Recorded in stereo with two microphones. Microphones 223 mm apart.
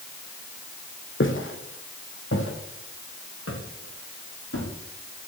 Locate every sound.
1.2 s footsteps: 60° left (ahead or behind), 3 m; by 4.7 s 75° left (ahead or behind), 7 m